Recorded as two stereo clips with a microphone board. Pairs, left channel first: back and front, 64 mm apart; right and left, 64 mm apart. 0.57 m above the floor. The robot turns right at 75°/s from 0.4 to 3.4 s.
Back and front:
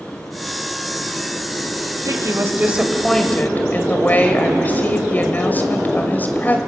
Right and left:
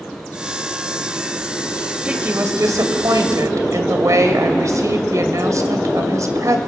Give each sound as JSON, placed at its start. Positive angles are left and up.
{"t": 2.0, "sound": "a woman speaking", "azimuth_deg": 15, "distance_m": 2.5}